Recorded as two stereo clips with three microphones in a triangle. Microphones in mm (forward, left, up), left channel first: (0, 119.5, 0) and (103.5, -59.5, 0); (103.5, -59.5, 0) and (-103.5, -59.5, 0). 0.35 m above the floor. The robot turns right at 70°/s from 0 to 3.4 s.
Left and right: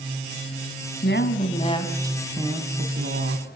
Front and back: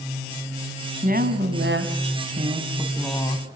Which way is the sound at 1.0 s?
135° left.